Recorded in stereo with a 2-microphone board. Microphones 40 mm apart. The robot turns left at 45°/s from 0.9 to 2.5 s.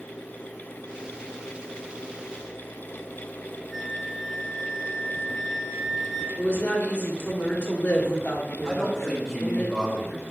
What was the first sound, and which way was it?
A flute, 10° right (ahead or behind).